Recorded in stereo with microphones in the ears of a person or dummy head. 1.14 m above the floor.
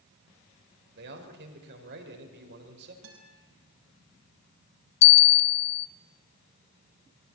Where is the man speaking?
65° right (ahead or behind), 4 m.